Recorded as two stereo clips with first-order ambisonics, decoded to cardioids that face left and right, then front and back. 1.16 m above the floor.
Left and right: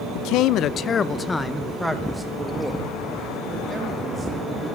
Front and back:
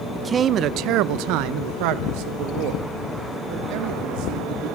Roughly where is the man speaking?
Left.